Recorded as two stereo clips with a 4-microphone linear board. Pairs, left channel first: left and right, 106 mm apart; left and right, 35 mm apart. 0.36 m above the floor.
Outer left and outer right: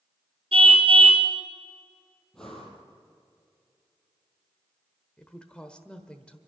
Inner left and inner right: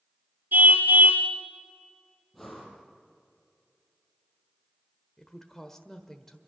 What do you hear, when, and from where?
0.5 s a car horn: 75° right (ahead or behind), 3 m
2.3 s breathing: 5° left (ahead or behind), 5 m
5.2 s a woman speaking: 10° left (ahead or behind), 1.3 m